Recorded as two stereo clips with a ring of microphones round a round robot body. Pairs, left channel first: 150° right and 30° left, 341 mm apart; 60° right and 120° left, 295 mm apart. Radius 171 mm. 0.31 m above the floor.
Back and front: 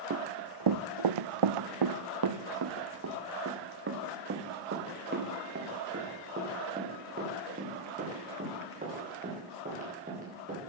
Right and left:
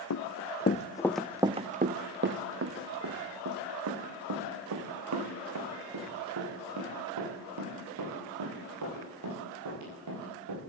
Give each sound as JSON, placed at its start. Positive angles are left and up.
{"t": 0.1, "sound": "running footsteps", "azimuth_deg": -25, "distance_m": 1.6}